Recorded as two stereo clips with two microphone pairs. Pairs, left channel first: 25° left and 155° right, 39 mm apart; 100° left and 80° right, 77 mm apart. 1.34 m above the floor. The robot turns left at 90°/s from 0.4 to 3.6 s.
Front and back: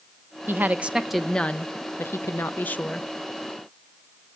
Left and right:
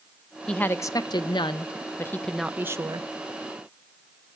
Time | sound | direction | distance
0.5 | a woman speaking | straight behind | 0.6 m